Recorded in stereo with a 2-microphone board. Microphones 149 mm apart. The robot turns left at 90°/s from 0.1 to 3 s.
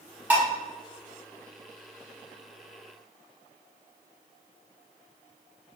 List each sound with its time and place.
0.3 s dishes clattering: 10° right (ahead or behind), 1.2 m; by 0.5 s 25° right (ahead or behind), 1.2 m